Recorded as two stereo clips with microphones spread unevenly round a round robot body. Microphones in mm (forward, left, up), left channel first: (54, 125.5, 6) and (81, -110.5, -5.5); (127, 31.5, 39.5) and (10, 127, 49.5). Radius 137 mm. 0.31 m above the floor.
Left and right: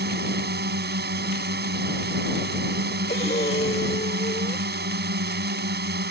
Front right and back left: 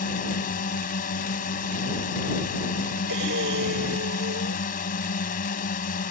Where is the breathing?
170° left.